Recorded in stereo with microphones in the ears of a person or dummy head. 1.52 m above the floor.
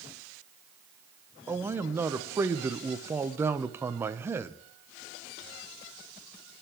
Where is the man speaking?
15° right (ahead or behind), 0.8 m.